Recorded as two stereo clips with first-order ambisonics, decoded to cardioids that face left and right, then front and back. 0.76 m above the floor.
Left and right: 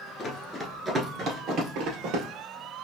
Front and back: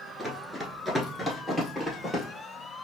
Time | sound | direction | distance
0.2 | running footsteps | 95° left | 0.7 m